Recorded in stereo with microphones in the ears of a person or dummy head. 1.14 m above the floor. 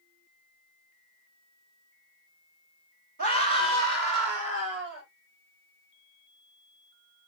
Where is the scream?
50° right (ahead or behind), 4.5 m; by 5.0 s 60° right (ahead or behind), 5 m.